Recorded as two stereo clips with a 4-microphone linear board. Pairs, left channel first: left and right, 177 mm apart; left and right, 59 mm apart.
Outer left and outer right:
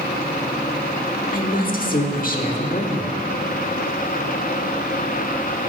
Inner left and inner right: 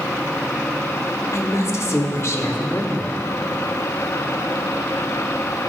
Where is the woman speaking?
55° left (ahead or behind), 1.2 m.